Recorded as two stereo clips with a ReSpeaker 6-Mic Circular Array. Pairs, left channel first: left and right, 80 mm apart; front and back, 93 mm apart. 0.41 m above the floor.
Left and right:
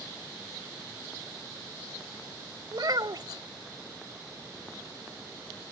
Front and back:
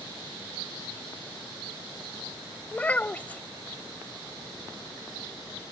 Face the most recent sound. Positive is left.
turn(degrees=-70)